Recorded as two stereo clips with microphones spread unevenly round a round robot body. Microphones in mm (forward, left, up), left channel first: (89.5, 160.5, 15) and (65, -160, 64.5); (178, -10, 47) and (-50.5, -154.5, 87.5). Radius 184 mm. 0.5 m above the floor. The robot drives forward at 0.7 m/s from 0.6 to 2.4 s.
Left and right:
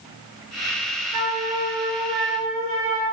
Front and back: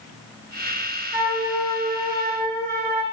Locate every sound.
1.1 s a flute: 65° right, 1.6 m; by 3.0 s 95° right, 1.5 m